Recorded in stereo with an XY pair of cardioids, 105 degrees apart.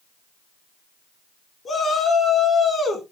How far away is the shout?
About 4 m.